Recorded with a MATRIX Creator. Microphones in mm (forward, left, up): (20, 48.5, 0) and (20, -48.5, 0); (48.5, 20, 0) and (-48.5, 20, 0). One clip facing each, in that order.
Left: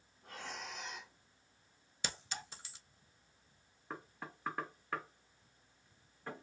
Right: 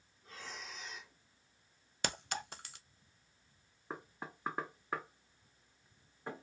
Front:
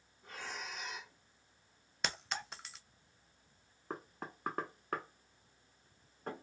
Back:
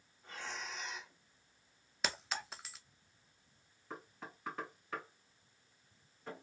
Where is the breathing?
80° left, 1.4 m.